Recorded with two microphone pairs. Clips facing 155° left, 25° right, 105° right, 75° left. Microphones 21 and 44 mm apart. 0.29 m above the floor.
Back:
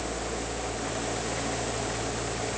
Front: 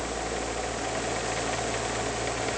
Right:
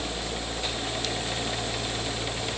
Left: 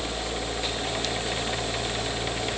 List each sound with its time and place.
Only background noise.